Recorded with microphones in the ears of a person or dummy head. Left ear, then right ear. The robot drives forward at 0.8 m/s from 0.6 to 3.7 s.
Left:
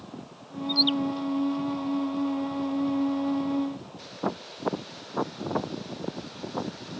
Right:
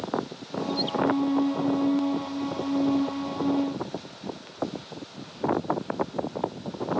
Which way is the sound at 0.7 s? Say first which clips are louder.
Left 7 dB; 35° left (ahead or behind).